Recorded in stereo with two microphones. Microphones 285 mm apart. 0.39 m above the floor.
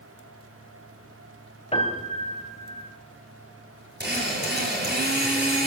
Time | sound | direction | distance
1.7 | a piano | 20° left (ahead or behind) | 2.5 m
4.0 | a drill | 35° right (ahead or behind) | 6.5 m